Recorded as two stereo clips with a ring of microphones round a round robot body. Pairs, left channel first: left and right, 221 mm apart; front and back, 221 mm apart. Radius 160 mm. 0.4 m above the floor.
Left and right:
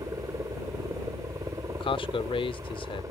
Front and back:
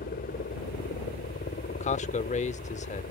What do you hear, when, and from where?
0.0 s a helicopter: 25° right
1.7 s a man speaking: 35° left